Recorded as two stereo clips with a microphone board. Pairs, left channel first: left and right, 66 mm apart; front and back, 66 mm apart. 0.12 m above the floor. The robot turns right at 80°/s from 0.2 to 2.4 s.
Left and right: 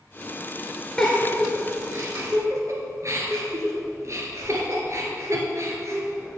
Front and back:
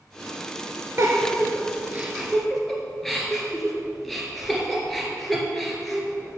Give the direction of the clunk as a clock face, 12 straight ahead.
I don't hear a clunk.